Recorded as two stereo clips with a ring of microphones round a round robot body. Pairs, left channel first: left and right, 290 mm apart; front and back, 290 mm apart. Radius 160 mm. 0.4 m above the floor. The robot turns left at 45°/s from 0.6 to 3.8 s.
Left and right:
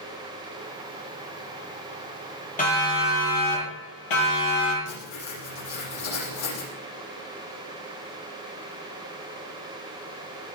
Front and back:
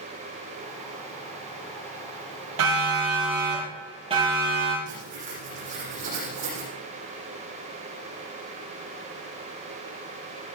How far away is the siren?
About 9.5 m.